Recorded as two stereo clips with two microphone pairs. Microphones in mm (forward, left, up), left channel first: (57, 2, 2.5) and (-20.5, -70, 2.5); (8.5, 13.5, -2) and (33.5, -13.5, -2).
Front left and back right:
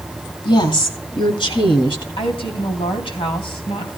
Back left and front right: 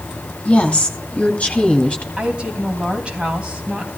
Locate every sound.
0.5 s a woman speaking: 75° left, 2 m
2.2 s a woman speaking: 10° left, 3 m